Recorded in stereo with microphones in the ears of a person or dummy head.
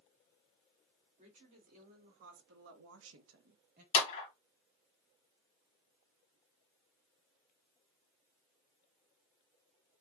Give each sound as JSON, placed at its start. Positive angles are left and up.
{"t": 1.2, "sound": "a woman speaking", "side_deg": -40, "distance_m": 2.5}
{"t": 3.9, "sound": "a clap", "side_deg": 35, "distance_m": 1.5}